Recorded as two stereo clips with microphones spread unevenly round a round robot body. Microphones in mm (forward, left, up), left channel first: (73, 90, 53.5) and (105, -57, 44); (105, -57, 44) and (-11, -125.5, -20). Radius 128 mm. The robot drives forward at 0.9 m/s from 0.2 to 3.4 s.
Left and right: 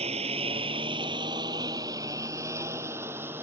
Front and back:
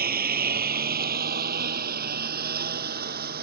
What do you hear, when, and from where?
0.0 s a lawn mower: 145° right; by 3.4 s 160° right